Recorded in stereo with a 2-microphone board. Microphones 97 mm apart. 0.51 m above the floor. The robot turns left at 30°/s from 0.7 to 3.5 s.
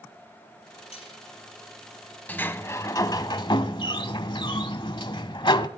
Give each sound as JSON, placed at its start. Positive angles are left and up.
{"t": 0.9, "sound": "cutlery clinking", "side_deg": 80, "distance_m": 8.0}
{"t": 2.3, "sound": "a sliding door", "azimuth_deg": 165, "distance_m": 0.8}